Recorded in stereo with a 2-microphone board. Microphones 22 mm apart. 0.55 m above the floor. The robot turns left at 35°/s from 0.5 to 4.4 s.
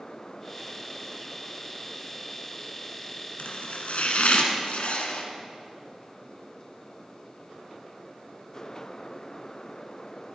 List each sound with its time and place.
3.4 s chopping: 110° left, 1.4 m; by 5.2 s 75° left, 1.4 m